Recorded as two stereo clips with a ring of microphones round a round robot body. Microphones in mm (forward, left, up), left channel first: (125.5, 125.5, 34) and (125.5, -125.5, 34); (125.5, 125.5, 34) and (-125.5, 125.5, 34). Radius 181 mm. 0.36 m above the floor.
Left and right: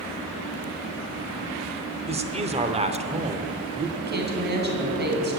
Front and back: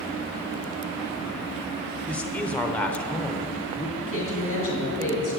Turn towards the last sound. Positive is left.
turn(degrees=-45)